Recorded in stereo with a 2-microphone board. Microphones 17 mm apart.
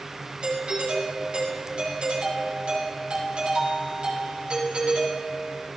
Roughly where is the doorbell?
Right.